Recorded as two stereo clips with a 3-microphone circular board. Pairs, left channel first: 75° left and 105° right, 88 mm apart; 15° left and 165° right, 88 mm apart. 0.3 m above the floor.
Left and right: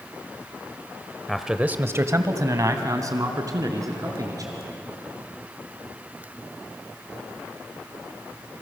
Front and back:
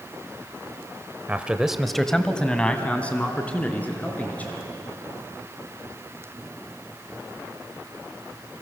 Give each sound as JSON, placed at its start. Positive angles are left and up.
{"t": 1.3, "sound": "a man speaking", "azimuth_deg": 150, "distance_m": 0.9}